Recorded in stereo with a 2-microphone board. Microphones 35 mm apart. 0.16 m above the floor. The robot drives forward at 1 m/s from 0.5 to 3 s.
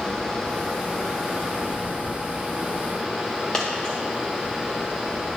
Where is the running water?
25° left (ahead or behind), 1.4 m; by 5.4 s 10° left (ahead or behind), 4 m.